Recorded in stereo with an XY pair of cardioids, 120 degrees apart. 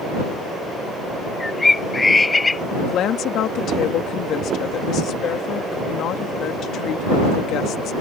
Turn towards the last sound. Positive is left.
turn(degrees=65)